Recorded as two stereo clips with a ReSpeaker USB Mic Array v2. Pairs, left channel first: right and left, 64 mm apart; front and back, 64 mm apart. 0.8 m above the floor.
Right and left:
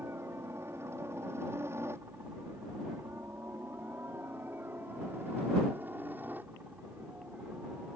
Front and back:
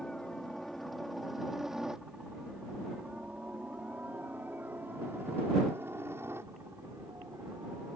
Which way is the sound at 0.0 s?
75° left.